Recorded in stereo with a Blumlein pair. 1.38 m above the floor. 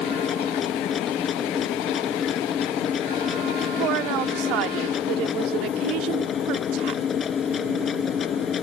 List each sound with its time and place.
0.0 s a machine running: 25° left
3.8 s a woman speaking: 40° right